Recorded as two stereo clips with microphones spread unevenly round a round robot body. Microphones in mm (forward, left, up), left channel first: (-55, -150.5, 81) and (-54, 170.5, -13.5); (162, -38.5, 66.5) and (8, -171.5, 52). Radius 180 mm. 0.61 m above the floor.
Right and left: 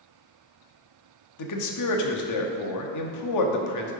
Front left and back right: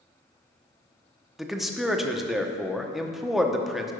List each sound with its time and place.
1.4 s a man speaking: 55° right, 1.0 m